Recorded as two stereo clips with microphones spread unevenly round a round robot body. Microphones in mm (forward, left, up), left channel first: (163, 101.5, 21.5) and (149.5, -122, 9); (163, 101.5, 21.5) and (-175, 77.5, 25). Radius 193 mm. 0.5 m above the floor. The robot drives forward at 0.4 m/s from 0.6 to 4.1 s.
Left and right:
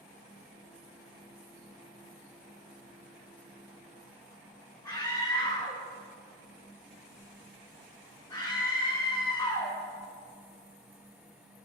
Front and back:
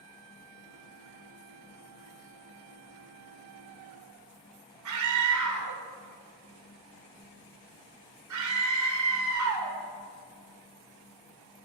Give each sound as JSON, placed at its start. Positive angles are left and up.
{"t": 4.8, "sound": "a scream", "azimuth_deg": 165, "distance_m": 2.0}